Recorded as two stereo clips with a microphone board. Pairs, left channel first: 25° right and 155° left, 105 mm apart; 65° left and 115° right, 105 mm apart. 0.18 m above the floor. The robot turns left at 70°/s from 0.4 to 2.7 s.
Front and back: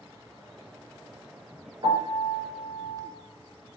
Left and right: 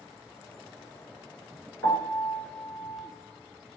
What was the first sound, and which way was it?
A piano, 130° left.